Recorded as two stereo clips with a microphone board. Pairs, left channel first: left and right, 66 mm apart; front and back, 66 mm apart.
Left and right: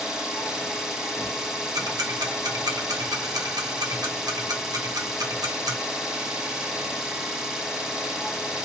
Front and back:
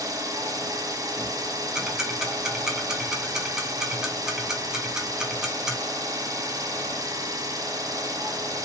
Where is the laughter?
I don't hear laughter.